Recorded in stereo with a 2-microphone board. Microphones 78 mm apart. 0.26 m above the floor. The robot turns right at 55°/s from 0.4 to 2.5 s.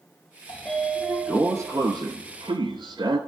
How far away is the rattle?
I don't hear a rattle.